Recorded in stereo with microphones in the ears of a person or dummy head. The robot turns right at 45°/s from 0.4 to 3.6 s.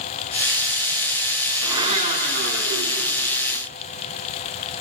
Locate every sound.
1.6 s a blender: 160° right, 4.5 m; by 3.6 s 75° right, 4.5 m